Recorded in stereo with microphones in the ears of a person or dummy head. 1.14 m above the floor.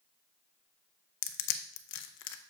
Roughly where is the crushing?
Left.